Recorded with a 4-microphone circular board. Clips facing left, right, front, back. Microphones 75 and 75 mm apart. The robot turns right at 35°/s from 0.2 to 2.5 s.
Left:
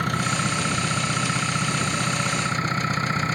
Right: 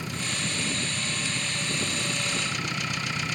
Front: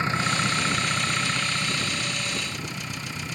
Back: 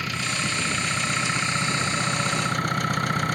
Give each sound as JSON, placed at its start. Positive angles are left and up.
{"t": 0.0, "sound": "an engine running", "azimuth_deg": 60}